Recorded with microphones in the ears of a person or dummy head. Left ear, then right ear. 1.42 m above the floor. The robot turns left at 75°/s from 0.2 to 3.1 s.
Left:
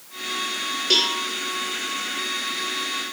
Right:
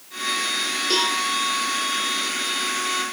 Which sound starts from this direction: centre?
A cowbell, at 0.9 s.